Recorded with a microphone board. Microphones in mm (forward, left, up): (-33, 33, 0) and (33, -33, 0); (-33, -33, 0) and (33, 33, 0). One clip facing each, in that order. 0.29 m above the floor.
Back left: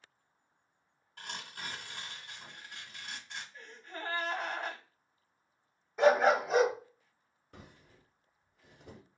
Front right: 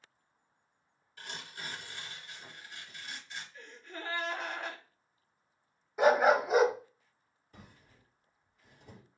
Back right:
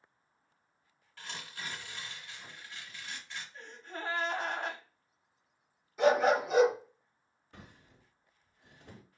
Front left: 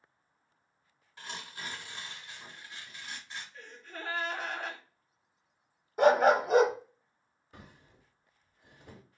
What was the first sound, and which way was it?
Tearing paper, 115° left.